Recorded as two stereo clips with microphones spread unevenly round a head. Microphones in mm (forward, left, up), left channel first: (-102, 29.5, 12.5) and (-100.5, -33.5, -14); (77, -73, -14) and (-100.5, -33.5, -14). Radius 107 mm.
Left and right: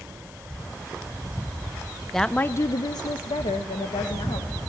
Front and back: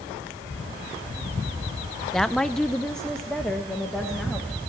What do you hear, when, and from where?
2.1 s a woman speaking: 100° right, 0.6 m; by 4.6 s 75° left, 2 m